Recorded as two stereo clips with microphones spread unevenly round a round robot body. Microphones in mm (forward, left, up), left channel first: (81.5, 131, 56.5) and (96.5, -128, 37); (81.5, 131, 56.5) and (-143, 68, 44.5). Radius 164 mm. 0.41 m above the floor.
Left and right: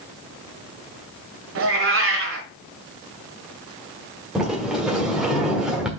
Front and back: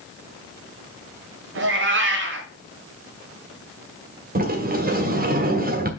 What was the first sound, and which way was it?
A cat meowing, 125° right.